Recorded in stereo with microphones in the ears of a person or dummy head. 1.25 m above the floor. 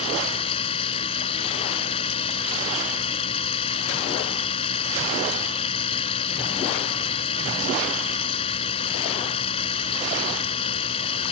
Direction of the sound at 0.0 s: 35° left (ahead or behind).